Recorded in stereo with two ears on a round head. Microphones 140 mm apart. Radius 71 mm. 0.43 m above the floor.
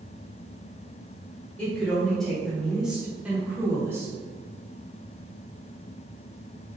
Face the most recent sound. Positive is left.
turn(degrees=-15)  # may be behind; listen again after turning